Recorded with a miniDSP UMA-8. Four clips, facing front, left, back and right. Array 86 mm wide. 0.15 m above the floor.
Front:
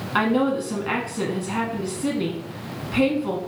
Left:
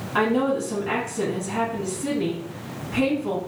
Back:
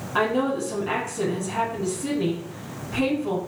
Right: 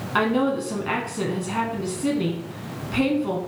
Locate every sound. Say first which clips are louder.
0.1 s a woman speaking: even, front 2 dB; 40° right, 1.1 m